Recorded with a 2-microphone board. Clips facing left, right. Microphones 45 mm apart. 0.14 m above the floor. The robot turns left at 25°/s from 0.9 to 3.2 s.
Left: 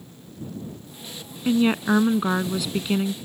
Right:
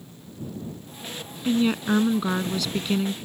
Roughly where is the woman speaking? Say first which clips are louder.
Left 2 dB; left.